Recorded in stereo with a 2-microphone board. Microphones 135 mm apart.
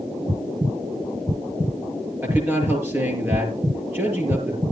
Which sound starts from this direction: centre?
A man speaking, at 2.2 s.